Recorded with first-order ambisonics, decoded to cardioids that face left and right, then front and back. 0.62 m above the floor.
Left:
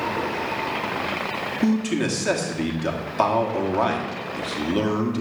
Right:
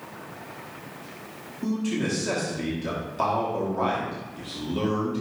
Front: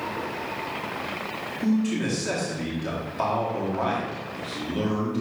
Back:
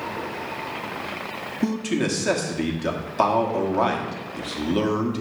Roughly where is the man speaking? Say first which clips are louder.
Left 2 dB, back 2 dB; behind left.